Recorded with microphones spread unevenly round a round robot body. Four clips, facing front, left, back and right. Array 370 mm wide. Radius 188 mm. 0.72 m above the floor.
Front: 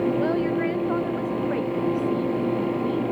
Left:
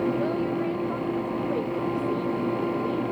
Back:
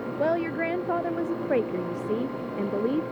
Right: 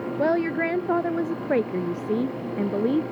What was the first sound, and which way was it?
A woman speaking, 95° right.